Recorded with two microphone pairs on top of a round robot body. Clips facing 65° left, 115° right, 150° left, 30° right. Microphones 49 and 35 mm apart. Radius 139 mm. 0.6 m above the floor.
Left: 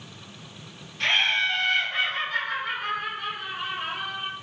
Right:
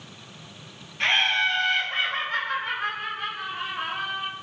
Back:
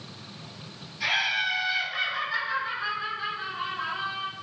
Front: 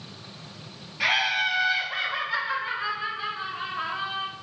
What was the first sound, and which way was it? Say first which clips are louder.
Laughter: right 1 dB, front 2 dB; 50° right.